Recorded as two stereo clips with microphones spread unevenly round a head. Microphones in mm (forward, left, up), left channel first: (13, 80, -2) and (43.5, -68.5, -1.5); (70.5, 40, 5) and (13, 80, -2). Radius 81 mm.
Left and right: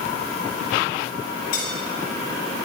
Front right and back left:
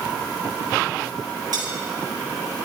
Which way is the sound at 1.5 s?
125° left.